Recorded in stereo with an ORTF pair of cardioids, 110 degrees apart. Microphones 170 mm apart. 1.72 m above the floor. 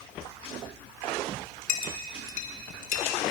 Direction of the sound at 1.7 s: 60° left.